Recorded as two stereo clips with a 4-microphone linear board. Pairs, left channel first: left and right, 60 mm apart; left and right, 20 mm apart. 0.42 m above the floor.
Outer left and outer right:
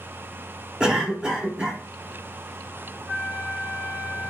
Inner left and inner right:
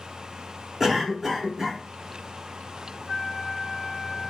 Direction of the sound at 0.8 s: 15° right (ahead or behind).